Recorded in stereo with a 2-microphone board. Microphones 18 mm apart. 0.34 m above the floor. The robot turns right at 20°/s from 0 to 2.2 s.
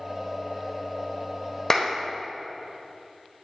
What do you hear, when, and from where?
1.7 s a clap: 25° left (ahead or behind), 1.2 m; by 1.9 s 20° left (ahead or behind), 1.2 m